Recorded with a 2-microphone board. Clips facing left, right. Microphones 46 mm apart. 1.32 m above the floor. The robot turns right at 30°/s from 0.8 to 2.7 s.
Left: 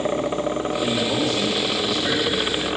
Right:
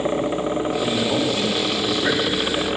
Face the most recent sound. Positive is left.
turn(degrees=-125)